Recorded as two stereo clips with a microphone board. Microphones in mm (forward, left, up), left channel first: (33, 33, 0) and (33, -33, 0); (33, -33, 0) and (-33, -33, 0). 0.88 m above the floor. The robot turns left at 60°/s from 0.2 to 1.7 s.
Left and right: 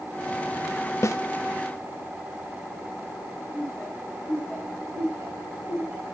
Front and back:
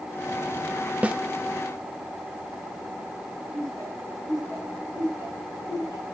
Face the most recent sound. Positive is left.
turn(degrees=-140)